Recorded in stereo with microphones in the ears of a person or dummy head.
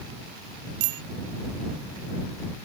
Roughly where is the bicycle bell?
Right.